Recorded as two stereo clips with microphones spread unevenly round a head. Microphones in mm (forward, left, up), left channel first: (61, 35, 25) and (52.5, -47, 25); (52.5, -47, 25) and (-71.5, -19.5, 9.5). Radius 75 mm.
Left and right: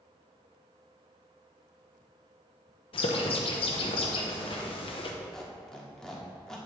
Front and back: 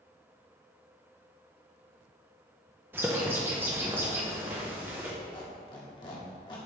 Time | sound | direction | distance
2.9 | a bird | 90° left | 0.8 m
5.3 | a squeak | 5° left | 1.2 m